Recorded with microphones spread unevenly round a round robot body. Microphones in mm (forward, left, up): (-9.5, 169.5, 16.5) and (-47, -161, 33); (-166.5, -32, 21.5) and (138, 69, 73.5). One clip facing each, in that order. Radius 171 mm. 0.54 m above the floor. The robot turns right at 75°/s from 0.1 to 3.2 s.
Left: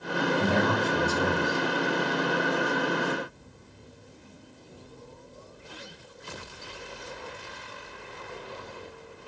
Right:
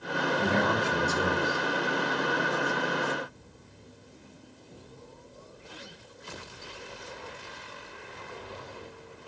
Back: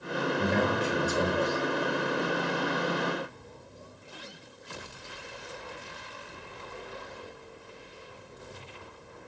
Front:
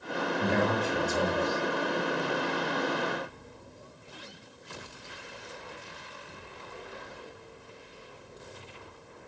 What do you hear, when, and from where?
0.4 s a man speaking: 175° right, 1.6 m; by 1.6 s 85° right, 1.6 m